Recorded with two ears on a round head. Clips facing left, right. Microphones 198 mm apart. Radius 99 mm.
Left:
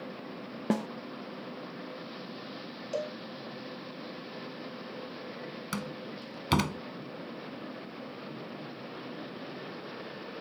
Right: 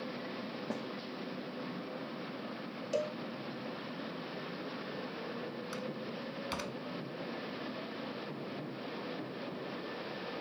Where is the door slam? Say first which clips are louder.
Left 1 dB; 80° left.